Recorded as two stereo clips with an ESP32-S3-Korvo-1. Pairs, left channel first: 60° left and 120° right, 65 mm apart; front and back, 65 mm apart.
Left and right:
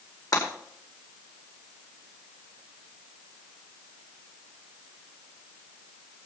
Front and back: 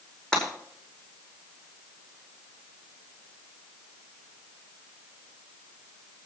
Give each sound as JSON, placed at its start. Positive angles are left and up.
{"t": 0.3, "sound": "breaking glass", "azimuth_deg": 80, "distance_m": 5.0}